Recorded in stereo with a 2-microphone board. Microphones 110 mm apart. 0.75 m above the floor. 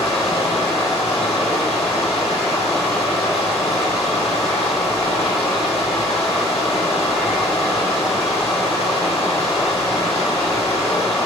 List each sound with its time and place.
0.0 s running water: 70° left (ahead or behind), 3 m